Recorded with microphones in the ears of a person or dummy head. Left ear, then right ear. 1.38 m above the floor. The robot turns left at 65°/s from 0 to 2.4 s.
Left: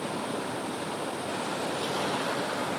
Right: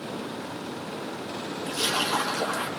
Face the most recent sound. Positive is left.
turn(degrees=-95)